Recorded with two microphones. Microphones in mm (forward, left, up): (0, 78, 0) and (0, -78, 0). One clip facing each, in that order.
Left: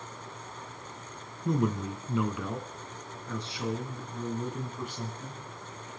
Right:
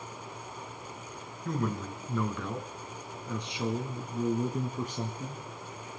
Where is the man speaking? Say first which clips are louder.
Left 4 dB; 25° left (ahead or behind), 1.7 m; by 5.4 s 50° right (ahead or behind), 2 m.